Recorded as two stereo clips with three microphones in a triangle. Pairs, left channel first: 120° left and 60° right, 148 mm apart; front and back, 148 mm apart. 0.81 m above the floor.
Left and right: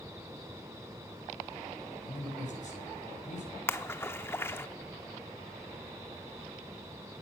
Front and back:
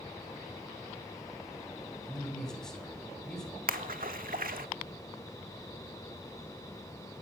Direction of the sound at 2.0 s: 85° left.